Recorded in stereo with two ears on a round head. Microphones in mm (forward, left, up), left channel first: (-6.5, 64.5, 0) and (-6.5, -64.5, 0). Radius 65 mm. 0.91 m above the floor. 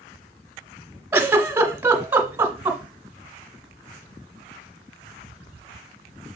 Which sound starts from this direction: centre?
A giggle, at 1.1 s.